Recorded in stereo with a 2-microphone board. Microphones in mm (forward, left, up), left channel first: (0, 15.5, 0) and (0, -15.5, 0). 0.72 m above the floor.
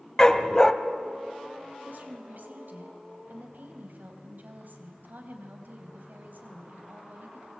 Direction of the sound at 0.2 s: 25° left (ahead or behind).